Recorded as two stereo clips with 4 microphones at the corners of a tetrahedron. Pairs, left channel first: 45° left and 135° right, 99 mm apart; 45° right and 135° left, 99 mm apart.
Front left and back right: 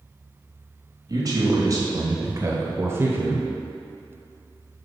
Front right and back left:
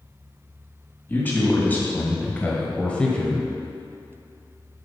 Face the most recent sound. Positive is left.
turn(degrees=-110)